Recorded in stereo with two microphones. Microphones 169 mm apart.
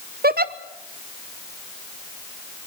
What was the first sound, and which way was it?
A giggle, 65° right (ahead or behind).